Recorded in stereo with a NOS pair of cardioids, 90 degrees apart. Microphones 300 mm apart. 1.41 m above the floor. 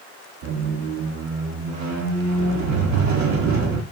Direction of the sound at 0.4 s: 70° right.